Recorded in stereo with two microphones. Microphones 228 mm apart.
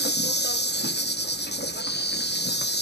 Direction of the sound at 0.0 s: 50° left (ahead or behind).